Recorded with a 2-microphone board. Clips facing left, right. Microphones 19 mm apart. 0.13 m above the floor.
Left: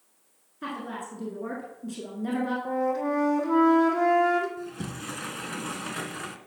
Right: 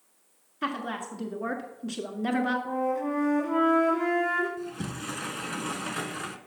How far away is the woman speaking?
About 1.3 m.